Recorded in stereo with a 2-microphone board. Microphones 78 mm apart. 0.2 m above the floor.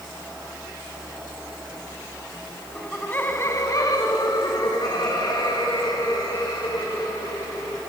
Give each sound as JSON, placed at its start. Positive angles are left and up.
{"t": 2.8, "sound": "laughter", "side_deg": 5, "distance_m": 1.2}